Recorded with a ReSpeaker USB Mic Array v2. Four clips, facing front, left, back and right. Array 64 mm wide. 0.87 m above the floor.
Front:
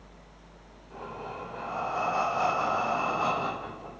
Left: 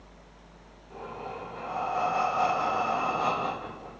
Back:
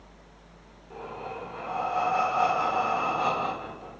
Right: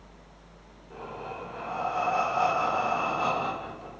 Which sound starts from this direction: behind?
Breathing, at 0.9 s.